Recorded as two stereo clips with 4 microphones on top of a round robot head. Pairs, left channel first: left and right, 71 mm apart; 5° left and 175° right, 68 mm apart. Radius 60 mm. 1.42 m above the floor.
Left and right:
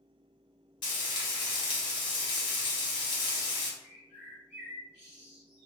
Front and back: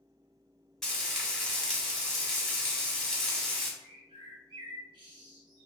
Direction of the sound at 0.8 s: 90° left.